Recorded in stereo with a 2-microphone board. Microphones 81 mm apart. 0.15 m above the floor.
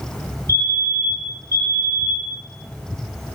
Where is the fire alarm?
45° left (ahead or behind), 8 m.